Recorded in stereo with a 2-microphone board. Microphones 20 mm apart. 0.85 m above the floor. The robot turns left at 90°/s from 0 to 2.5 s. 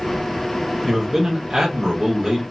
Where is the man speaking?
5° left, 1.3 m; by 2.4 s 140° right, 1.3 m.